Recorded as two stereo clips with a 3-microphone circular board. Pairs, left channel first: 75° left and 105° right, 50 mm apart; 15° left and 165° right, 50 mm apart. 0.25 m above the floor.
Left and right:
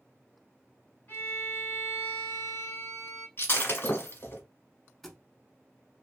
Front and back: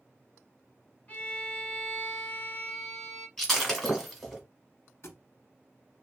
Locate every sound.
1.1 s a violin: 60° left, 2 m
3.4 s breaking glass: 100° left, 1.3 m
5.0 s a thud: 10° right, 0.7 m